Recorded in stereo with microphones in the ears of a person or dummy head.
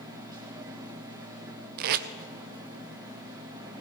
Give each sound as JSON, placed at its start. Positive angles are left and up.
{"t": 0.0, "sound": "a machine running", "side_deg": -20, "distance_m": 1.7}
{"t": 1.8, "sound": "tape being pulled", "side_deg": -55, "distance_m": 0.7}